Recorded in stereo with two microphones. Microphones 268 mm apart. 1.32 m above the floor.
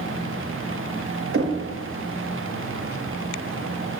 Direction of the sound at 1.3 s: 50° right (ahead or behind).